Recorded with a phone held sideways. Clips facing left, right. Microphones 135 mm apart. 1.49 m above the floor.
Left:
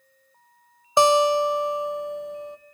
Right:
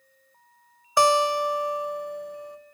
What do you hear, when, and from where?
1.0 s a guitar: 20° left (ahead or behind), 0.6 m